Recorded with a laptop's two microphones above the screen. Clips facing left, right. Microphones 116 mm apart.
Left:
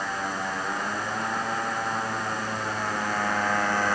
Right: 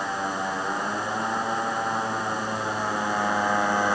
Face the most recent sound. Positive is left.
turn(degrees=-15)  # may be behind; listen again after turning